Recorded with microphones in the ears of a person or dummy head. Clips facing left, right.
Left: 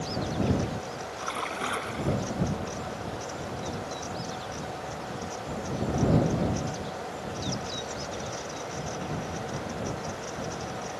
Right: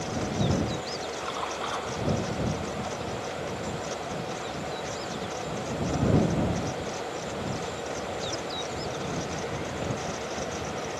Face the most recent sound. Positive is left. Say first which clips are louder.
# right 1 dB
turn(degrees=35)  # may be behind; listen again after turning